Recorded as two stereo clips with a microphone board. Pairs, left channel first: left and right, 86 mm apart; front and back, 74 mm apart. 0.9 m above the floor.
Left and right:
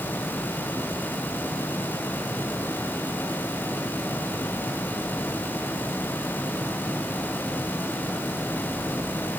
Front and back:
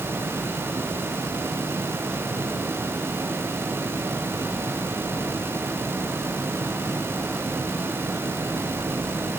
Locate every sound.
Only background noise.